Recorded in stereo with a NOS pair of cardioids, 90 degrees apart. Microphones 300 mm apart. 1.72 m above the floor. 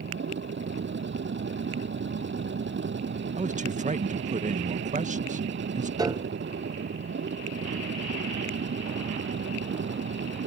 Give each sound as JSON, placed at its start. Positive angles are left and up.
{"t": 0.0, "sound": "a machine running", "azimuth_deg": -35}
{"t": 3.4, "sound": "a man speaking", "azimuth_deg": -25}
{"t": 6.0, "sound": "a piano", "azimuth_deg": -10}